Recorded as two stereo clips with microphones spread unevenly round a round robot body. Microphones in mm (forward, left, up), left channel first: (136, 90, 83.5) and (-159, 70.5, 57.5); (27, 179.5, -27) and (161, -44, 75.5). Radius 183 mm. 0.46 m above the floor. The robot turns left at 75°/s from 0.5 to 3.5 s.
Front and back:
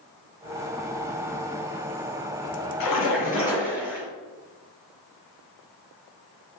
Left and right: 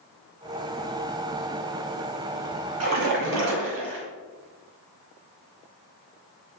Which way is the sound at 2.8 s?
25° right.